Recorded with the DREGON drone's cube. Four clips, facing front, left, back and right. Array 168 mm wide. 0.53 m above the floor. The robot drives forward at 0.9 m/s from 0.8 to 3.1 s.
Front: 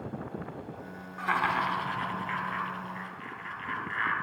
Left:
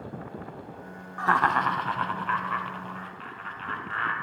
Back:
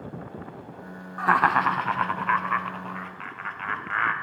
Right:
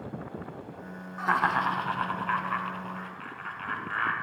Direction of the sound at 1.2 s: 145° left.